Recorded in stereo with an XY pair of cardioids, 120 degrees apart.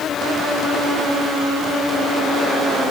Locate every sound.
Only background noise.